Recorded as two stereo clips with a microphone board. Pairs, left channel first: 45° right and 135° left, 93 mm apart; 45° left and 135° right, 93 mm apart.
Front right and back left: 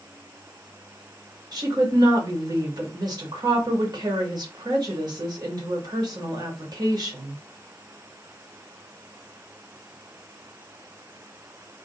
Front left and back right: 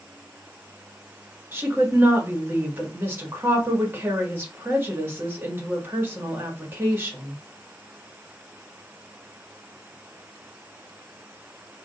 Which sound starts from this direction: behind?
A woman speaking, at 1.5 s.